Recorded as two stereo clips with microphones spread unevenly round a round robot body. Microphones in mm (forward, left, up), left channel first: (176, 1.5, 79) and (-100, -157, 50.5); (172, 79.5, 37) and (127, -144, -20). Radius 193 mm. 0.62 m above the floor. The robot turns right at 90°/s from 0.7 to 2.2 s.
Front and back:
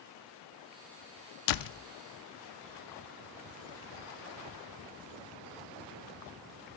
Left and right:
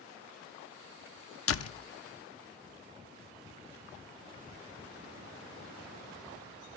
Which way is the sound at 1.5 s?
40° left.